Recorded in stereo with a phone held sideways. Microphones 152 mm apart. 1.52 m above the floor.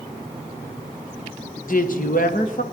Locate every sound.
1.7 s a woman speaking: 65° left (ahead or behind), 1.5 m